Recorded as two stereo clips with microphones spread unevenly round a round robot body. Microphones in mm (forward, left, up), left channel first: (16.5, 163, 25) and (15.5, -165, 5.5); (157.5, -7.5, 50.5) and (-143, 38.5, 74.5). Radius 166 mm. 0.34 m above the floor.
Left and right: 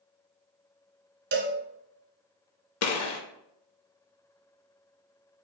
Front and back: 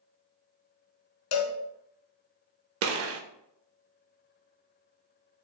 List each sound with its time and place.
1.3 s a cowbell: 30° right, 0.7 m
2.8 s a gunshot: 130° left, 0.6 m